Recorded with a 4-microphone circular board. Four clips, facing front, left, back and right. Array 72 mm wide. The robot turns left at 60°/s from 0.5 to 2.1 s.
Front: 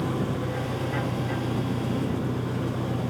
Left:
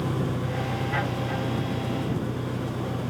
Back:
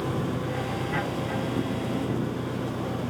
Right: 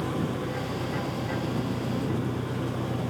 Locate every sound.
0.0 s an engine running: 80° left; by 3.1 s 20° right